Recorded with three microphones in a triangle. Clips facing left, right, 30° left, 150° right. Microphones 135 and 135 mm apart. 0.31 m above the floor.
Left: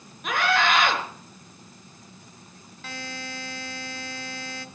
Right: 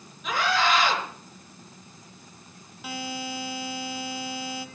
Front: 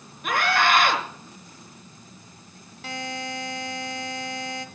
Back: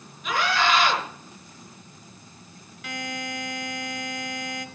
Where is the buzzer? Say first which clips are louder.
Right 4 dB, front 1 dB; 15° right, 1.6 m.